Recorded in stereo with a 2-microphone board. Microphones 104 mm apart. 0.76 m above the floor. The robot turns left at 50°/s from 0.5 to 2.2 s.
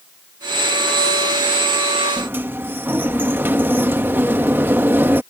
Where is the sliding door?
20° right (ahead or behind).